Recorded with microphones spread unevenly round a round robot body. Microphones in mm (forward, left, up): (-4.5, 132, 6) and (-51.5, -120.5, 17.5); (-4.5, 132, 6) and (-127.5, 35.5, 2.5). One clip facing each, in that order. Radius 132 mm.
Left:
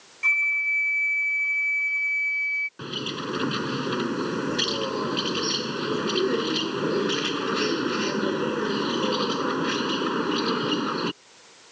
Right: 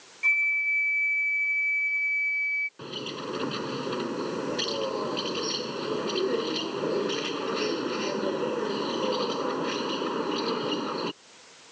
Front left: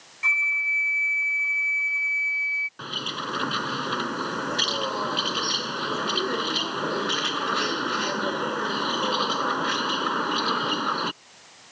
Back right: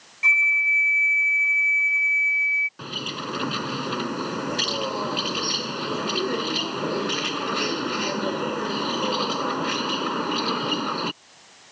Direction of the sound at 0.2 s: 150° left.